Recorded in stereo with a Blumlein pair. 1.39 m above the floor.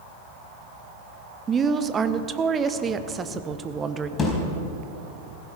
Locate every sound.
1.5 s a woman speaking: 20° right, 1.0 m
4.2 s a thud: 20° left, 4 m